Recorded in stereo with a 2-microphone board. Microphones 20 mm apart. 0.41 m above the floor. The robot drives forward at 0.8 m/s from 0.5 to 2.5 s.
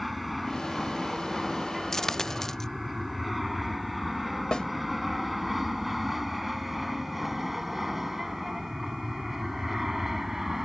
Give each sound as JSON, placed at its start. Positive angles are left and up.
{"t": 0.0, "sound": "an aircraft", "side_deg": 0}
{"t": 1.9, "sound": "a dropped coin", "side_deg": 20}
{"t": 4.5, "sound": "a snare drum", "side_deg": 45}